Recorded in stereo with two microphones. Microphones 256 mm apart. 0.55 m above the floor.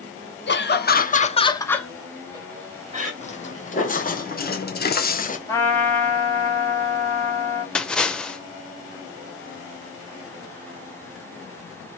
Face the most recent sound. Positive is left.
turn(degrees=5)  # may be behind; listen again after turning